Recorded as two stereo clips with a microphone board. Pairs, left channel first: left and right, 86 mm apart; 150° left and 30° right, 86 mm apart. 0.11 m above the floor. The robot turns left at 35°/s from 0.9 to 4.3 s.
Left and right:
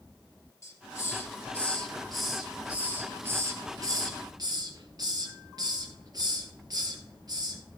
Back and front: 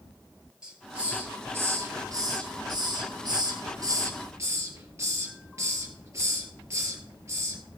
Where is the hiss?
45° left, 3 m; by 7.6 s 75° right, 3 m.